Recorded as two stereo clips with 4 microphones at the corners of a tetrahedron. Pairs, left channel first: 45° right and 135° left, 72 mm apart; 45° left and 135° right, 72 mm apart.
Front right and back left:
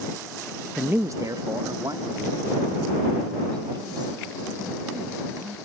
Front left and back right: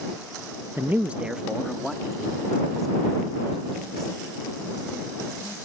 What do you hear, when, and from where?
0.8 s a man speaking: 155° right; by 5.5 s 130° left